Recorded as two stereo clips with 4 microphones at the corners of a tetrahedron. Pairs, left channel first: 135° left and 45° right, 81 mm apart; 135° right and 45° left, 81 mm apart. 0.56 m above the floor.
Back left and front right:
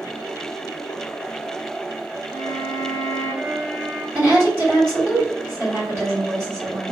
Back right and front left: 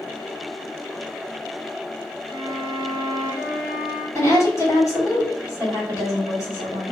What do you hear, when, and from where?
2.3 s a violin: 100° right, 0.8 m
4.2 s a woman speaking: 95° right, 1.7 m